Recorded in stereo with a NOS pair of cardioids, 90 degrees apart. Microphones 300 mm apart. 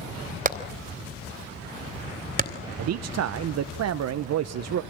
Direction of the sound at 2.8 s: 60° right.